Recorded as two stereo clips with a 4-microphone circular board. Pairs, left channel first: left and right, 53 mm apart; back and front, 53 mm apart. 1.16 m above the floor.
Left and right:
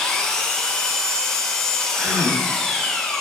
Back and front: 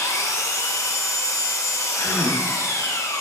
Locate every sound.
0.0 s an engine running: 170° left, 0.8 m
1.9 s a gasp: 165° right, 2 m